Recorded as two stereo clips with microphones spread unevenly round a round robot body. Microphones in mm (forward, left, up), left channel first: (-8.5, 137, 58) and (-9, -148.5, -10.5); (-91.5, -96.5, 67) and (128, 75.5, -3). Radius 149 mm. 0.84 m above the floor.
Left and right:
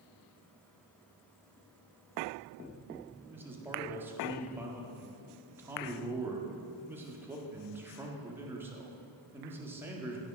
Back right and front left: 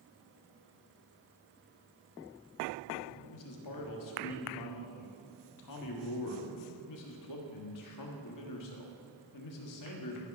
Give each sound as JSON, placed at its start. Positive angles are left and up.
{"t": 3.3, "sound": "a man speaking", "azimuth_deg": -170, "distance_m": 1.7}